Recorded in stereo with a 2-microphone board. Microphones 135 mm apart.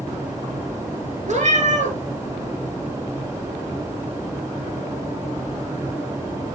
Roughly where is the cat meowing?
Right.